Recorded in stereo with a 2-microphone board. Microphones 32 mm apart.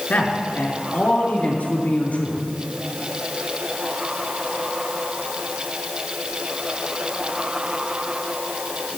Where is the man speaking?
65° left (ahead or behind), 4 m; by 2.4 s 55° left (ahead or behind), 4.5 m.